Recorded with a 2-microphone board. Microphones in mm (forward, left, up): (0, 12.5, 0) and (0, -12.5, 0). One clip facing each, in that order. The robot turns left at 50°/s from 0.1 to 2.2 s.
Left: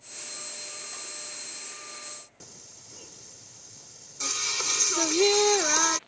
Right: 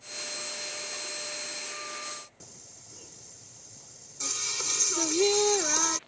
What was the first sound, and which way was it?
Singing, 20° left (ahead or behind).